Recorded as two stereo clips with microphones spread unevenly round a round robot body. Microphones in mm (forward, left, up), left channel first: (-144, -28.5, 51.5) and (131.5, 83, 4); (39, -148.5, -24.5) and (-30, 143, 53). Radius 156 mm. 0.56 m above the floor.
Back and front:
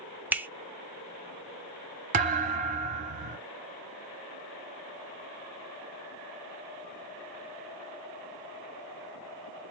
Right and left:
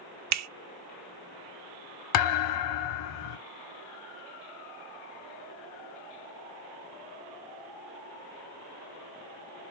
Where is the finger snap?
90° left, 0.5 m.